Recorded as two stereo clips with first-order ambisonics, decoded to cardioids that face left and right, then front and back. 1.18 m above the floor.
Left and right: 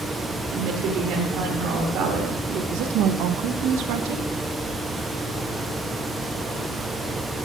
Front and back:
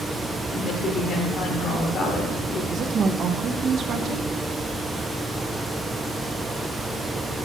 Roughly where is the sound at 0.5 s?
Ahead right.